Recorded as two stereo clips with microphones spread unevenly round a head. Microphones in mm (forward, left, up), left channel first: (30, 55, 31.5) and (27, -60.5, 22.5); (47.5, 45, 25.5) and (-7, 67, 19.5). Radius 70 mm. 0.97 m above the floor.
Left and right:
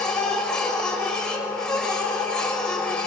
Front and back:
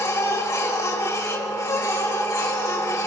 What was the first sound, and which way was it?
A machine running, 5° left.